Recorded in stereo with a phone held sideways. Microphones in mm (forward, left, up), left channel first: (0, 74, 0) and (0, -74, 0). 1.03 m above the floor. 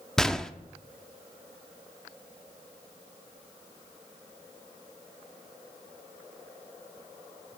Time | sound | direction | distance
0.2 | a gunshot | 5° left (ahead or behind) | 0.5 m